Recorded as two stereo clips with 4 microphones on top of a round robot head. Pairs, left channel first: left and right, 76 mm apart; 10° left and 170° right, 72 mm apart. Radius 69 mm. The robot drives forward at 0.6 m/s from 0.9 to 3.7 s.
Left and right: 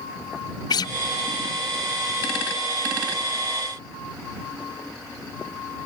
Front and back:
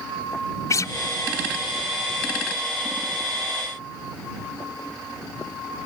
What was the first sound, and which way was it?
A guitar, 60° left.